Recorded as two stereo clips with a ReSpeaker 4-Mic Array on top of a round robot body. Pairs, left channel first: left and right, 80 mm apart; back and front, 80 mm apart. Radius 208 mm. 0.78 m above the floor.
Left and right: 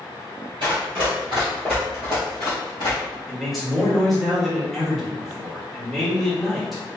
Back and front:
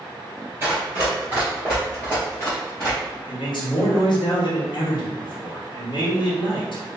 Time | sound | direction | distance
0.6 | running footsteps | 60° right | 0.9 m
3.3 | a man speaking | straight behind | 1.5 m